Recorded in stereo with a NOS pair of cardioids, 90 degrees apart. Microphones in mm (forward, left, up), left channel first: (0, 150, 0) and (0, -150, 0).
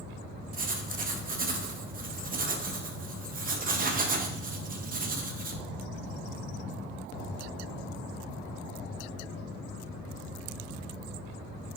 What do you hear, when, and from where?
0.5 s writing: 30° right, 0.7 m